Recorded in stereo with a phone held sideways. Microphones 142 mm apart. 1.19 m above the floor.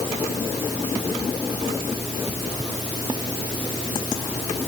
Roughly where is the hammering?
No hammering in this recording.